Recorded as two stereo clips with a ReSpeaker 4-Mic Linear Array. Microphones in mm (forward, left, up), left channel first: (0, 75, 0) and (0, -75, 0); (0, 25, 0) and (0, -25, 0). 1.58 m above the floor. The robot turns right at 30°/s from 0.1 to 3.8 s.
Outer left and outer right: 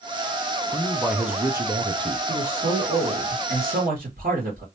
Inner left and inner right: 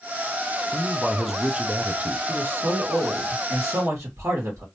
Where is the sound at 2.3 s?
130° right, 1.8 m; by 4.7 s 80° right, 1.8 m.